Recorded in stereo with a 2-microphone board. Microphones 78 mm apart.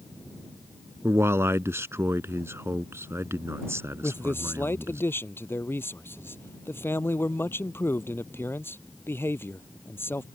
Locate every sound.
1.0 s a man speaking: 35° right (ahead or behind)
4.0 s a man speaking: 30° left (ahead or behind)